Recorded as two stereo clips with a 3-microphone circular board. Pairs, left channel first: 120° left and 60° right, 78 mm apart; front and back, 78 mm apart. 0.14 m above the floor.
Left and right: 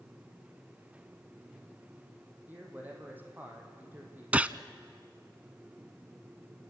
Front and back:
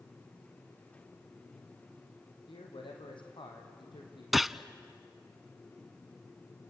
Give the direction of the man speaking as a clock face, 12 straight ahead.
12 o'clock.